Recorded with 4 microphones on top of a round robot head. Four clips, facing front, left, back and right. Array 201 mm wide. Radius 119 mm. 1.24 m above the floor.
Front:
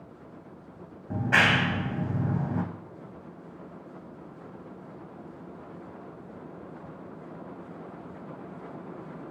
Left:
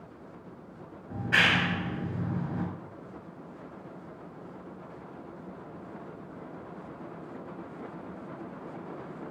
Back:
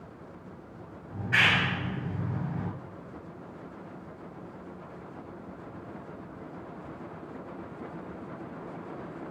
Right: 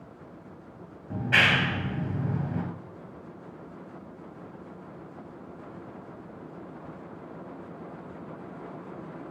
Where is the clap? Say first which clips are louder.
Right 2 dB, front 4 dB; 20° right, 8.5 m.